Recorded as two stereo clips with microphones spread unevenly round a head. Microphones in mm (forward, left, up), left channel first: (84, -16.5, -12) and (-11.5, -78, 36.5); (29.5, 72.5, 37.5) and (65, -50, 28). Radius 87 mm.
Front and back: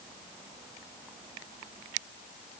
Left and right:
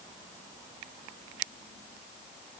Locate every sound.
Only background noise.